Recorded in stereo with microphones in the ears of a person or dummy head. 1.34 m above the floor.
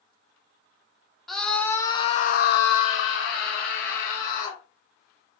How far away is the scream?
About 0.9 m.